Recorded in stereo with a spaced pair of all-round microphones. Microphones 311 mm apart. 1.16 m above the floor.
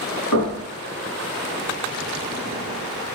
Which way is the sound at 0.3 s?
80° left.